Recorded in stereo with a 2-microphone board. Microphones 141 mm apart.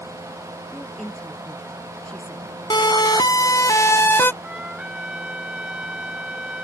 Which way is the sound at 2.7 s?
30° left (ahead or behind).